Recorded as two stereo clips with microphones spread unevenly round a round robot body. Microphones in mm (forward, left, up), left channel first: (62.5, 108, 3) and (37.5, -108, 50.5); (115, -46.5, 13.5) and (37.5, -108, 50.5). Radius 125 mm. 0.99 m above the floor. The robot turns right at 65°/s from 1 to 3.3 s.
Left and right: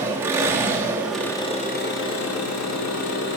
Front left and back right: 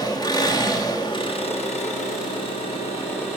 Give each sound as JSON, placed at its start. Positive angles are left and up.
{"t": 0.0, "sound": "an engine running", "azimuth_deg": -15, "distance_m": 0.8}